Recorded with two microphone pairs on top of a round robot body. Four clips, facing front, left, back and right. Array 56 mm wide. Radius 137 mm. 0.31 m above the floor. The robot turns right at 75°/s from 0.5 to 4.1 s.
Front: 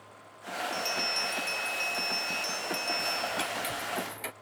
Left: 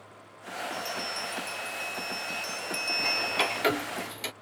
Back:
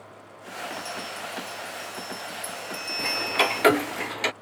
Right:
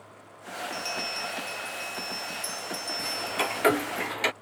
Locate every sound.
0.7 s a bell: 70° right; by 3.6 s 150° left
3.0 s ticking: 155° left; by 4.3 s 120° right